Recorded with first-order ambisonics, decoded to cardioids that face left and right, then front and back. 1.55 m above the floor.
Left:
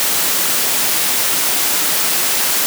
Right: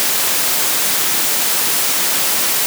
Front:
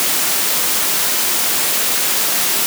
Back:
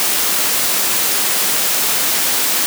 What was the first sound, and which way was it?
Only background noise.